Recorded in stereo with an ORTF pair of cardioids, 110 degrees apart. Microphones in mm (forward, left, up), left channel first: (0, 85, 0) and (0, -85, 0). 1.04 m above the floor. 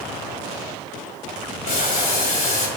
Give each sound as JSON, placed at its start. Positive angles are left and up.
{"t": 1.6, "sound": "boiling", "azimuth_deg": 50, "distance_m": 2.5}